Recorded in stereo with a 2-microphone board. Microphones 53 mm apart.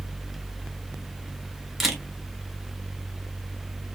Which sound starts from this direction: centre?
A camera shutter, at 1.8 s.